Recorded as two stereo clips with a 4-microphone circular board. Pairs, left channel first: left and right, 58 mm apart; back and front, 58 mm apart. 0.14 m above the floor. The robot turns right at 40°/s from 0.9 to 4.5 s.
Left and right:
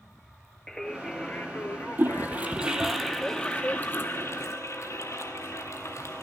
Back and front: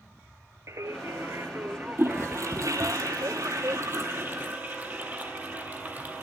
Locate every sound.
0.7 s singing: 10° left, 0.6 m; by 3.0 s 95° left, 0.6 m
2.0 s a toilet flushing: 40° right, 0.7 m; by 6.2 s 60° left, 0.7 m